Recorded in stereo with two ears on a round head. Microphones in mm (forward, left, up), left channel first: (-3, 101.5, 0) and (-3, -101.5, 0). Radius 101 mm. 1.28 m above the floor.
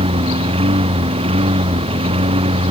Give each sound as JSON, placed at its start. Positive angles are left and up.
{"t": 0.0, "sound": "a lawn mower", "side_deg": -25}